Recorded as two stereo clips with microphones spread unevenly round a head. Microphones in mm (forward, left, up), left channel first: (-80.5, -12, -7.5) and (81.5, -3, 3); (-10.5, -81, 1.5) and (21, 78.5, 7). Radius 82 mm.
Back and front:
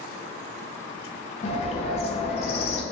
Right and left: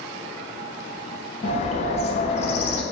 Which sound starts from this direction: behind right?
A bird, at 1.4 s.